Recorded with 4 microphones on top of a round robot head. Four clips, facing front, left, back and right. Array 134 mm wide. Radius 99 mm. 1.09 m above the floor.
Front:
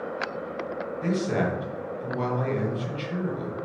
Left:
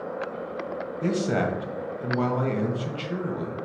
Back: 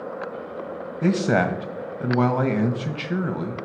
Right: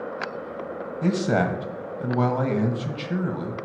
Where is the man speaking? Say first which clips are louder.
Right 3 dB, back 6 dB; 160° right, 1.1 m.